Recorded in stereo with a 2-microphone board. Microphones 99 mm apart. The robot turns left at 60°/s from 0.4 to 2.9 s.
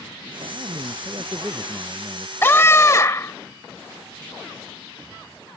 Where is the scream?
25° left (ahead or behind); by 3.3 s 30° left (ahead or behind).